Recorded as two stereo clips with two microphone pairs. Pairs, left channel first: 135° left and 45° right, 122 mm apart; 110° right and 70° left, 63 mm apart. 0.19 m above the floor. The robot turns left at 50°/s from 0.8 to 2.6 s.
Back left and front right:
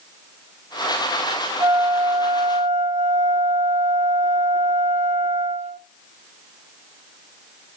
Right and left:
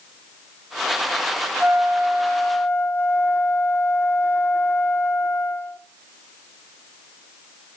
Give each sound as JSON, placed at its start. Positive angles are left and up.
{"t": 1.6, "sound": "a flute", "azimuth_deg": -5, "distance_m": 1.1}